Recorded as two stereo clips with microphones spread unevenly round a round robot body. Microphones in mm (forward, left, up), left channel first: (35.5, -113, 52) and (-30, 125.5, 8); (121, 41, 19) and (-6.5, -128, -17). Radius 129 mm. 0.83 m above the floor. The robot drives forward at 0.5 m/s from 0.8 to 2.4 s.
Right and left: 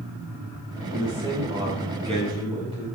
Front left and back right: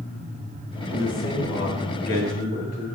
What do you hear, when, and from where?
0.9 s a man speaking: 35° left, 5.5 m; by 2.9 s 40° left, 5 m